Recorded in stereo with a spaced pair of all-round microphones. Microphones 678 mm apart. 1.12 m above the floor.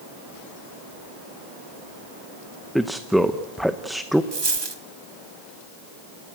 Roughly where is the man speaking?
Centre.